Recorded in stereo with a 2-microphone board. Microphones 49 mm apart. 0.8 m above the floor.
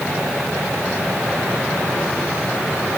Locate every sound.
Only background noise.